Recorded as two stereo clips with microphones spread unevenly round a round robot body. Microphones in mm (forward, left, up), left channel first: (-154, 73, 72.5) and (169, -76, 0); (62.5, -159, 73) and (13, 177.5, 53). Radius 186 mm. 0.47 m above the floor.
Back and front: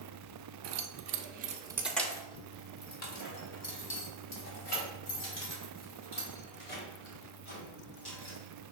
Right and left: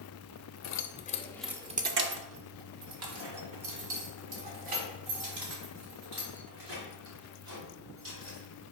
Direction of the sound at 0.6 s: 35° right.